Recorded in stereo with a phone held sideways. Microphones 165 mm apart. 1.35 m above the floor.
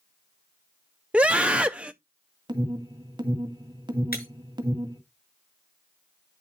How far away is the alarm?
About 1.9 m.